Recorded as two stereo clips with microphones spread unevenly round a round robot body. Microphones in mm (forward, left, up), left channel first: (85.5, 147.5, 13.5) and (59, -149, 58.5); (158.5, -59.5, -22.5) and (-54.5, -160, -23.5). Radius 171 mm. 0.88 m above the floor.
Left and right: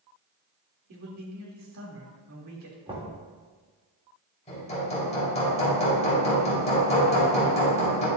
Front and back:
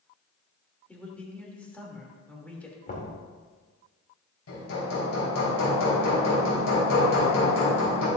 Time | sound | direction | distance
0.9 | a man speaking | 60° right | 3 m
2.9 | knocking | 20° right | 3 m
4.5 | hammering | 15° left | 4 m